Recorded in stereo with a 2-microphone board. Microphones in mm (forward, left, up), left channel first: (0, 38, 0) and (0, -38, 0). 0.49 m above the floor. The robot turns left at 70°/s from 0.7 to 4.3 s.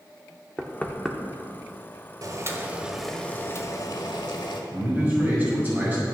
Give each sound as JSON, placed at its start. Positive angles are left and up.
{"t": 0.6, "sound": "knocking", "side_deg": 20, "distance_m": 0.6}
{"t": 2.2, "sound": "boiling", "azimuth_deg": -125, "distance_m": 0.9}
{"t": 4.7, "sound": "a man speaking", "side_deg": -35, "distance_m": 2.5}